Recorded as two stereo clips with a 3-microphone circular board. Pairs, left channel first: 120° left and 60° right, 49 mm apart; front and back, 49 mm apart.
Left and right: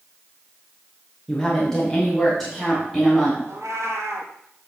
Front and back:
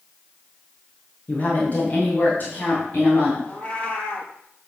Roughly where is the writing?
I don't hear writing.